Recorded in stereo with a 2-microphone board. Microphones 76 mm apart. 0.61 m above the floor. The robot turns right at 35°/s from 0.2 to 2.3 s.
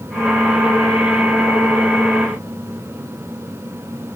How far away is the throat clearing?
No throat clearing in this recording.